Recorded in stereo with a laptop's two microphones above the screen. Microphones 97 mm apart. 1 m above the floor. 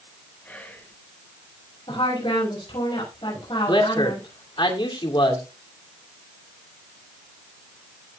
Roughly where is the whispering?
Centre.